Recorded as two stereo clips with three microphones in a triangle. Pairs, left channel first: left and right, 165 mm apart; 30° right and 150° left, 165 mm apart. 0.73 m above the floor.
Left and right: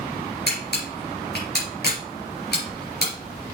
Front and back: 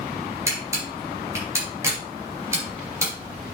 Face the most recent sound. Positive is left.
turn(degrees=80)